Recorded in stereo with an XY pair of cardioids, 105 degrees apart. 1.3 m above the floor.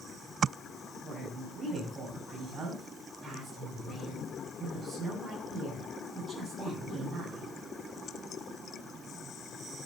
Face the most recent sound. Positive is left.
turn(degrees=-45)